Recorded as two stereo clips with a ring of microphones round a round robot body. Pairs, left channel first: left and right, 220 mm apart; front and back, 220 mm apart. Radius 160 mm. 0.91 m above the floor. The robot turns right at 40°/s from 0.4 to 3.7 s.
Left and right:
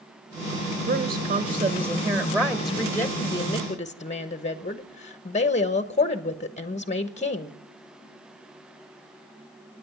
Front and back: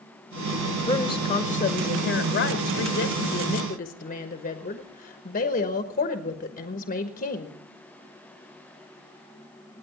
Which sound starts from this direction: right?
A woman speaking, at 0.9 s.